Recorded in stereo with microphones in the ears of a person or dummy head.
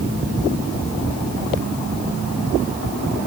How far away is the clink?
No clink in this recording.